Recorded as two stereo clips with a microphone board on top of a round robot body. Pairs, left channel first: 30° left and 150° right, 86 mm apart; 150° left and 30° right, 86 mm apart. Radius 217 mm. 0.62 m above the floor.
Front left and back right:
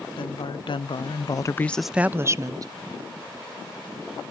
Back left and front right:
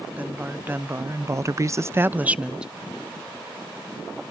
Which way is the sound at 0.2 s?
40° left.